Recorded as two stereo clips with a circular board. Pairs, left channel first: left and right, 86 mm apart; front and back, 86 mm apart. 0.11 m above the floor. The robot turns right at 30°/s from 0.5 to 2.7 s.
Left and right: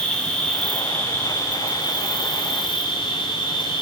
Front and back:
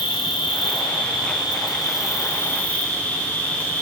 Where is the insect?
10° left, 4 m; by 3.8 s 75° left, 4 m.